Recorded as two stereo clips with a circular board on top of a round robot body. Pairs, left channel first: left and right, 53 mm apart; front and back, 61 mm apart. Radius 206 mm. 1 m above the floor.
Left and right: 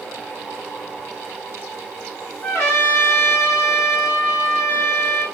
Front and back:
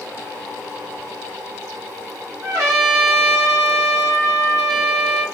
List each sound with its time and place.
2.4 s a trumpet: 140° left, 0.5 m